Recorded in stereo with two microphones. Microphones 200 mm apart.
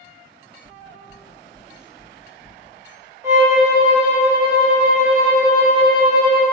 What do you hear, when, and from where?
0.6 s knocking: 20° right (ahead or behind), 1.2 m
3.2 s a violin: 15° right (ahead or behind), 0.7 m